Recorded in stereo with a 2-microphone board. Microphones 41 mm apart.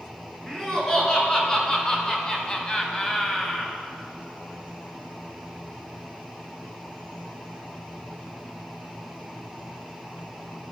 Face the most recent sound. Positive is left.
turn(degrees=15)  # may be behind; listen again after turning